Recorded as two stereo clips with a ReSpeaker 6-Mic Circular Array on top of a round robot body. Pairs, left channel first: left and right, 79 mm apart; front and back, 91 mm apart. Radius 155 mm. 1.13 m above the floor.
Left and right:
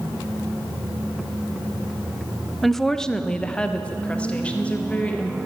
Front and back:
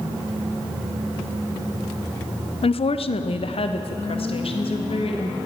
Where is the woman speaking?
Straight ahead, 0.6 m; by 5.4 s 15° left, 2 m.